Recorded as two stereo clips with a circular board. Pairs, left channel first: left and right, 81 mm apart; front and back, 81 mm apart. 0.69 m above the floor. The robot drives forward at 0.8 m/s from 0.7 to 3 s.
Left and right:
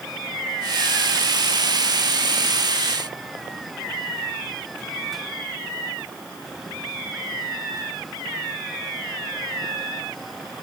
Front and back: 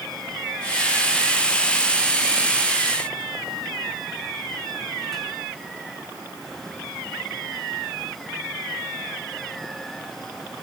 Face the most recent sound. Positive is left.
No sound to turn to.